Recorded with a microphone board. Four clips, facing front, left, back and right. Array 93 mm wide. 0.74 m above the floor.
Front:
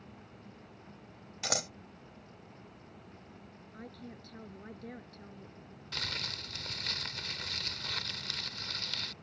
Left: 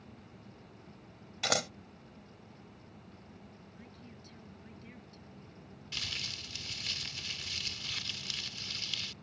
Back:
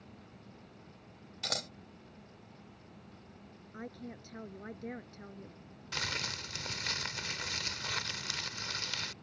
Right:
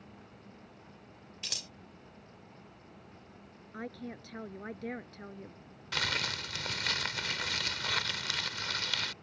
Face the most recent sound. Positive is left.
turn(degrees=-100)